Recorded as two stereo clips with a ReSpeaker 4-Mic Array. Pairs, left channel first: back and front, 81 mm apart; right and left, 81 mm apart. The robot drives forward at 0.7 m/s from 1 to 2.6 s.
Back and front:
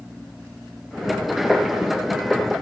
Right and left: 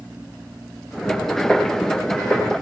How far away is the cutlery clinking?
No cutlery clinking in this recording.